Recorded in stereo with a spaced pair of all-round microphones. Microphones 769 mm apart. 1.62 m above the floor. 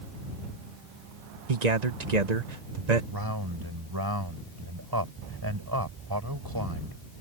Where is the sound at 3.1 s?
30° right (ahead or behind).